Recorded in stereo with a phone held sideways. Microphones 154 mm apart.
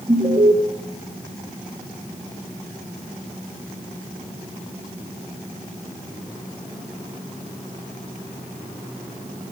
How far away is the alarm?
About 2.5 m.